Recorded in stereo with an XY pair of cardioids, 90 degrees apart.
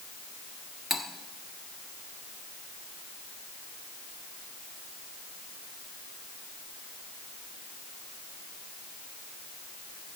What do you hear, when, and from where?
0.9 s cutlery clinking: 45° left, 1.2 m